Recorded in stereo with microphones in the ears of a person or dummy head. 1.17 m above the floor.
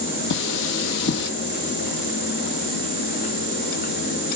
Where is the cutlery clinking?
70° left (ahead or behind), 1.5 m.